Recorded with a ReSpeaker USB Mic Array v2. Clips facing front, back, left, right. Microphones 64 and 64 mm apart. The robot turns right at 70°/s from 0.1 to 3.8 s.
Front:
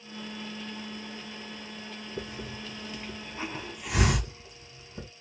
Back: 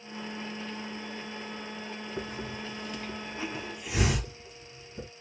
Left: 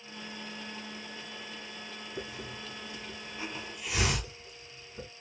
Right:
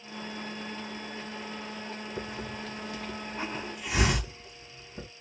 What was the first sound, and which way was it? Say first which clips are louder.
A hiss: back 1 dB, right 2 dB; 145° right.